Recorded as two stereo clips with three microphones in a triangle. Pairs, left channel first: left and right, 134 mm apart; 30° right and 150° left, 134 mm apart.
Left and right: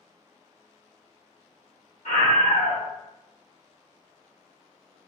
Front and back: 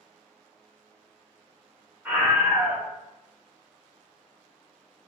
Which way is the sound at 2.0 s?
75° left.